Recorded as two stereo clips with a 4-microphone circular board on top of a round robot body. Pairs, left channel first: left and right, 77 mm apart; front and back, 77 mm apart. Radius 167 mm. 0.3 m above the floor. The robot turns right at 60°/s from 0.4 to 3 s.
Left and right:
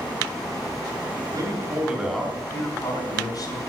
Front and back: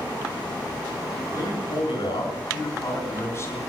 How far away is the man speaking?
About 5 m.